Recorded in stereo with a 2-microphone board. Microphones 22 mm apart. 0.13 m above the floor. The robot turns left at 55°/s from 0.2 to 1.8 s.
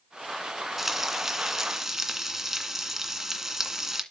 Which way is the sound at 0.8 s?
15° right (ahead or behind).